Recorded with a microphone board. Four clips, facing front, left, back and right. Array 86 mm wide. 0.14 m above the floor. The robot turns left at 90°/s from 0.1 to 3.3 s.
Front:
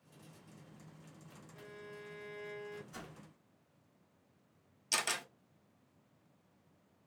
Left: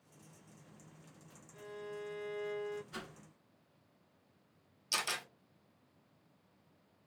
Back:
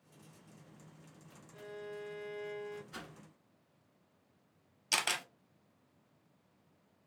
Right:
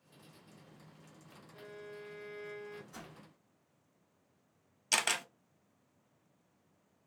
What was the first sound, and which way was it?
A violin, 155° right.